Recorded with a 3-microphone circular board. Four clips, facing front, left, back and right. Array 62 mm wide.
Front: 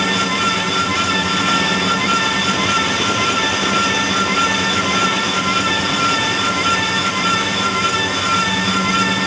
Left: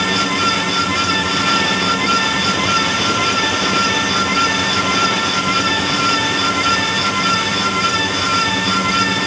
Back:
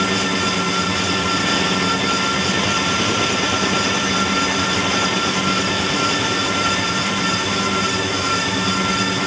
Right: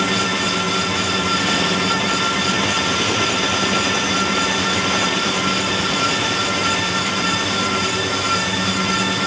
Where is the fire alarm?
No fire alarm in this recording.